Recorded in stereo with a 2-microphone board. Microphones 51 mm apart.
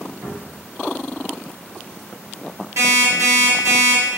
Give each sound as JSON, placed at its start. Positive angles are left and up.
{"t": 0.2, "sound": "a cupboard door", "side_deg": -45, "distance_m": 1.3}
{"t": 2.8, "sound": "an alarm clock", "side_deg": -80, "distance_m": 1.1}